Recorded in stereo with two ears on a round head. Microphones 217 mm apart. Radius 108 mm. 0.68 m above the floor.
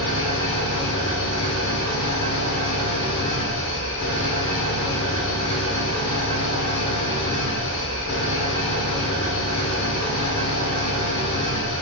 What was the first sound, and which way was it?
An engine running, 55° left (ahead or behind).